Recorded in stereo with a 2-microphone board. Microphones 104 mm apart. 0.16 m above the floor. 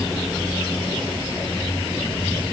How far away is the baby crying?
I don't hear a baby crying.